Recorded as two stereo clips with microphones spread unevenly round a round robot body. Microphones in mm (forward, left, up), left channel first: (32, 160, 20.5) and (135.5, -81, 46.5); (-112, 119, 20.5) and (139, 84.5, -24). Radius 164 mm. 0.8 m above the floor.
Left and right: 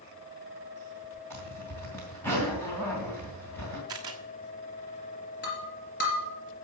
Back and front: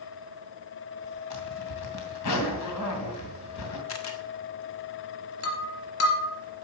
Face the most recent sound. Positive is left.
turn(degrees=170)